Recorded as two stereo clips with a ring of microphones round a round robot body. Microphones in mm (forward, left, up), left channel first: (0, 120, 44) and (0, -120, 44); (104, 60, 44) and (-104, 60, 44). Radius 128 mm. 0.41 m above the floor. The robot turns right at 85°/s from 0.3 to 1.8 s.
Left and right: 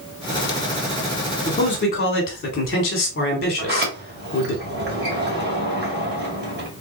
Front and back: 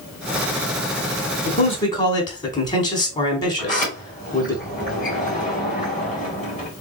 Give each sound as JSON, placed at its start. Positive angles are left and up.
{"t": 1.4, "sound": "a man speaking", "azimuth_deg": 20, "distance_m": 1.6}
{"t": 3.6, "sound": "a sliding door", "azimuth_deg": -50, "distance_m": 2.0}